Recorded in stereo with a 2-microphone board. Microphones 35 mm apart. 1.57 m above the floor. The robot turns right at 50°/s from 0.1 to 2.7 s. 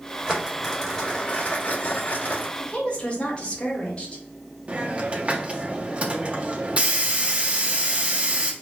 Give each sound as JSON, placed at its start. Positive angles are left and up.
{"t": 0.3, "sound": "crumpling", "azimuth_deg": -15, "distance_m": 2.5}
{"t": 2.6, "sound": "a woman speaking", "side_deg": 35, "distance_m": 1.6}
{"t": 4.7, "sound": "a hiss", "side_deg": -35, "distance_m": 0.8}